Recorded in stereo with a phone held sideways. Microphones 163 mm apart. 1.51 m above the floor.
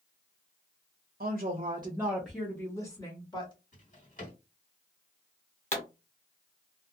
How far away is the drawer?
About 1.7 m.